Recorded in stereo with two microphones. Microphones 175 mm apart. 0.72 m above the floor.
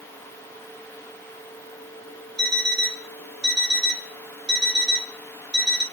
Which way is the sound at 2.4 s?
70° right (ahead or behind).